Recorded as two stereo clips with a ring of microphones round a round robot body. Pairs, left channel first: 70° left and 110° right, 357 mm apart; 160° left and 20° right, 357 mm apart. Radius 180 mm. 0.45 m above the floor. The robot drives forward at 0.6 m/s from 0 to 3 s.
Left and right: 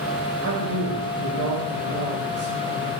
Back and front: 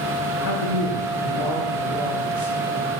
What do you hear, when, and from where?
0.4 s a man speaking: 170° right, 2 m; by 2.9 s 175° right, 3.5 m